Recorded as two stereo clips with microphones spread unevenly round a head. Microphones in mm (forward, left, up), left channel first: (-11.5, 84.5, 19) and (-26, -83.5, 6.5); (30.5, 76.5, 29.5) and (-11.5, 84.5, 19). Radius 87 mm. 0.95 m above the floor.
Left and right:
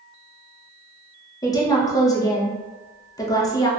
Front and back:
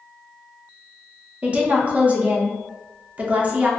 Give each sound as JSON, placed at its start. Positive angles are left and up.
{"t": 1.4, "sound": "a woman speaking", "azimuth_deg": 150, "distance_m": 0.6}